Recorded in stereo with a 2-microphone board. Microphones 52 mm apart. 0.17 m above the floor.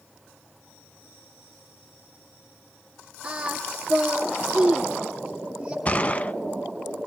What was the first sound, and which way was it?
Singing, 20° right (ahead or behind).